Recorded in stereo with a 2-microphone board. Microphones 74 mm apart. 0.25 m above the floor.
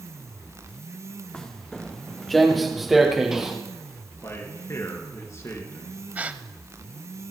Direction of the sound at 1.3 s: 10° left (ahead or behind).